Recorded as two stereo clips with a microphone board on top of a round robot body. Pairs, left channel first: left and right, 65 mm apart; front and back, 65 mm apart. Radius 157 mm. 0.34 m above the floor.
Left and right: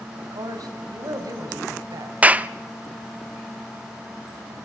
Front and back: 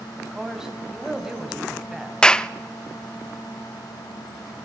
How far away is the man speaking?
About 3.5 m.